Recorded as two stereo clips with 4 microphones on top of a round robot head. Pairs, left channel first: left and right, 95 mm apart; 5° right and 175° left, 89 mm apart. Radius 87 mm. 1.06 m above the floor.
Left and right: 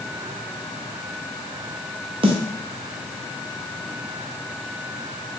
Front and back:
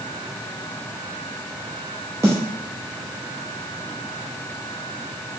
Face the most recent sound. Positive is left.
turn(degrees=-120)